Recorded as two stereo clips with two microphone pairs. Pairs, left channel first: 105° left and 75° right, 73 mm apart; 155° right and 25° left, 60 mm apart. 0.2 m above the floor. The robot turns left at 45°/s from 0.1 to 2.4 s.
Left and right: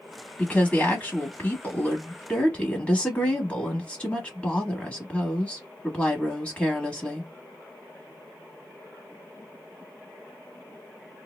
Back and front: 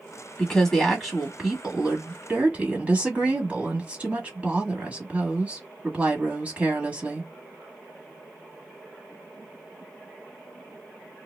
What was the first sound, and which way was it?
A woman speaking, 150° left.